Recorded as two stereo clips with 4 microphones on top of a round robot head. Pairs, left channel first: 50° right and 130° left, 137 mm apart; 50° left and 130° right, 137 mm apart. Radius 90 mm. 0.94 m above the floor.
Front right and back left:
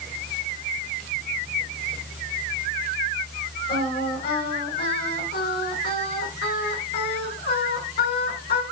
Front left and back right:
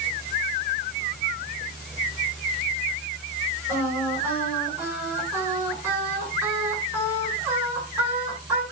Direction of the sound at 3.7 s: 50° right.